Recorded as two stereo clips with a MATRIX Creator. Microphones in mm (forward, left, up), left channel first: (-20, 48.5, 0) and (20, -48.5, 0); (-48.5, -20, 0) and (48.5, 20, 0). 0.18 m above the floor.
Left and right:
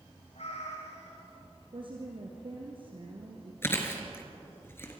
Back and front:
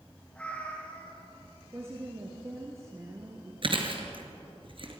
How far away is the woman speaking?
About 2.5 m.